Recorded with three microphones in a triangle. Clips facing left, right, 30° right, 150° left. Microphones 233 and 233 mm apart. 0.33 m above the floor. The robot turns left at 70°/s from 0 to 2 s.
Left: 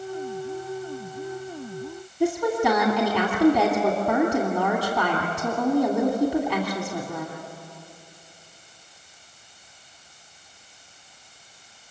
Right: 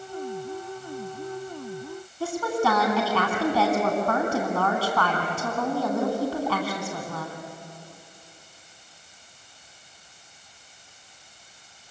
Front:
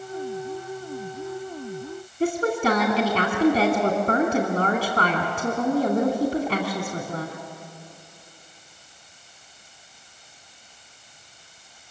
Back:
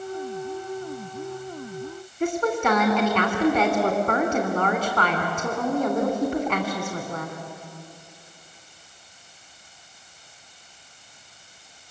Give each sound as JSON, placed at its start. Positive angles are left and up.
{"t": 2.2, "sound": "a woman speaking", "azimuth_deg": 20, "distance_m": 3.0}